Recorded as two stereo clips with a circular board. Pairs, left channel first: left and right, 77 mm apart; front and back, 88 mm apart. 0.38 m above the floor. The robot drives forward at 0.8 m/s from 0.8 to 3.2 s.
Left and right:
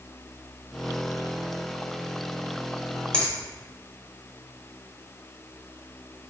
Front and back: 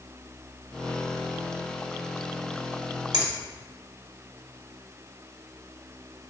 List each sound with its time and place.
3.1 s a finger snap: 155° left, 1.4 m; by 3.3 s 160° left, 1.4 m